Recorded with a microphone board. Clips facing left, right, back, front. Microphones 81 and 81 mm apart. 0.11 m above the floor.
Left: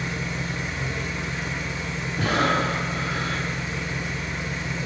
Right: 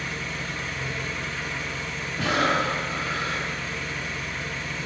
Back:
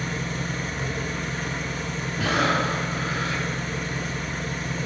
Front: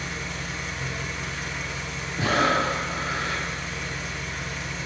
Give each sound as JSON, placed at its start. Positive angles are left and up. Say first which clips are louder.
{"t": 0.0, "sound": "an engine running", "louder": "left 3 dB, back 4 dB", "azimuth_deg": 155, "distance_m": 0.7}
{"t": 2.2, "sound": "breathing", "louder": "left 1 dB, front 1 dB", "azimuth_deg": 55, "distance_m": 1.9}